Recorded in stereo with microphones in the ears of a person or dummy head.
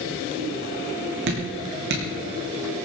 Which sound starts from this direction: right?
Dripping, at 1.3 s.